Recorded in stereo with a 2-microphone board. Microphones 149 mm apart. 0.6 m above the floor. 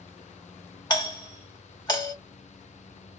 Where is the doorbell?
30° left (ahead or behind), 1.1 m.